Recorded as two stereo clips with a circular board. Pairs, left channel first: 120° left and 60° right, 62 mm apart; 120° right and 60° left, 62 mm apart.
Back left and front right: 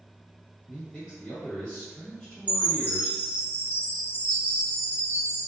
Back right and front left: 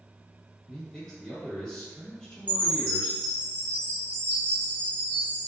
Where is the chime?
175° left, 1.1 m.